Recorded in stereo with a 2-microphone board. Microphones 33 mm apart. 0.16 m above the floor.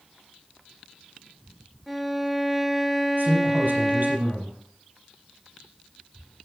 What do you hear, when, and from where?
1.9 s a violin: 5° right (ahead or behind), 1.0 m
3.2 s a man speaking: 70° right (ahead or behind), 4.5 m